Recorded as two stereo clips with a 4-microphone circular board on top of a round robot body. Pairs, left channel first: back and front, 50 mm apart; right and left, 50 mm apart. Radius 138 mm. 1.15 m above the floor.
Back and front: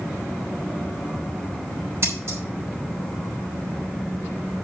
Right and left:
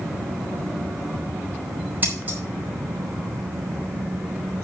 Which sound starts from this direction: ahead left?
Scissors, at 2.0 s.